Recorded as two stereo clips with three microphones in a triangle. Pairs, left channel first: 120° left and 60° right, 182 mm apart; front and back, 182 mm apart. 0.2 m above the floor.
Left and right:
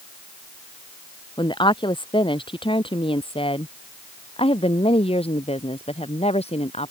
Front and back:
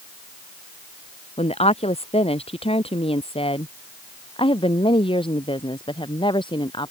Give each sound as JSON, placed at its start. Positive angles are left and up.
{"t": 1.4, "sound": "a woman speaking", "azimuth_deg": 55}